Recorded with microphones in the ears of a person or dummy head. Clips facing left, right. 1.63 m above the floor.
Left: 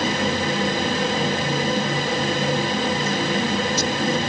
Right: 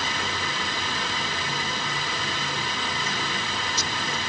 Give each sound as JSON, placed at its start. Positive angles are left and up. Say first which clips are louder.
{"t": 0.0, "sound": "a fan", "louder": "left 10 dB", "side_deg": 45}